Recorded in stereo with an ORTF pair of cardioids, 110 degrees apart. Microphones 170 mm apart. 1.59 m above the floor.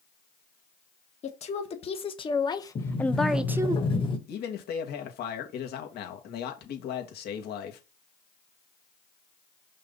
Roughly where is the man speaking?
Ahead left.